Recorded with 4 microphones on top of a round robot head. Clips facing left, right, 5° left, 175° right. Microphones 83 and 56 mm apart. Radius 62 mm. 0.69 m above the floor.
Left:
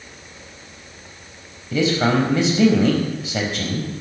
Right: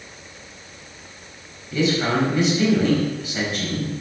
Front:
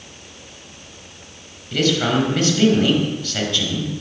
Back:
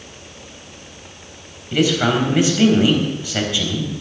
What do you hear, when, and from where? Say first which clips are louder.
1.7 s a man speaking: left 2 dB, back 1 dB; 110° left, 4.5 m